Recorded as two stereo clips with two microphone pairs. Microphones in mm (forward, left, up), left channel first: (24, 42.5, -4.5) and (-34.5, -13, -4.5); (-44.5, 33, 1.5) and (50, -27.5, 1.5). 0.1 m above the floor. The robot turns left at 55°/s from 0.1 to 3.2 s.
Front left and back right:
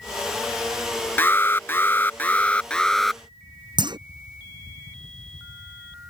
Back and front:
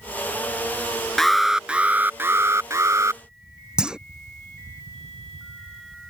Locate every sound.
1.2 s an alarm: 65° left; by 3.2 s 45° right
3.8 s a clunk: 115° right